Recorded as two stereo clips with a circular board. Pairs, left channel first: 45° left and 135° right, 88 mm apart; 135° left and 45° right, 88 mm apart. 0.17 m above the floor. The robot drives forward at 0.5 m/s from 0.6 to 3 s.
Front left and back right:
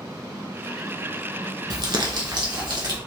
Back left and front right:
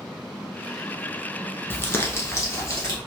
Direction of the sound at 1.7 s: 160° right.